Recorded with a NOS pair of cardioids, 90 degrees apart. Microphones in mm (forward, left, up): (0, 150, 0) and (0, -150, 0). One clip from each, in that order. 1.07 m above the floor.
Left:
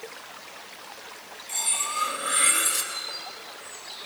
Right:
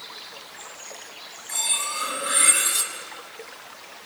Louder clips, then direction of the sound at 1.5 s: Right 2 dB; 5° right.